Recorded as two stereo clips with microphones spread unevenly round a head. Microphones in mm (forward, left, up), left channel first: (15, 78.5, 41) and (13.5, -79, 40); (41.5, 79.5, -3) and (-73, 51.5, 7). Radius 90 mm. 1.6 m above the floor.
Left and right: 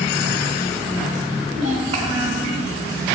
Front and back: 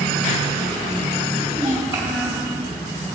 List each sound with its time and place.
1.5 s a child speaking: 120° right, 1.1 m